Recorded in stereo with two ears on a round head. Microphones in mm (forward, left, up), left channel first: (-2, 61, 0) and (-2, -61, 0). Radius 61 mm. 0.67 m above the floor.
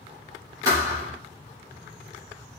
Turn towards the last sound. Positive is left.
turn(degrees=-25)  # may be behind; listen again after turning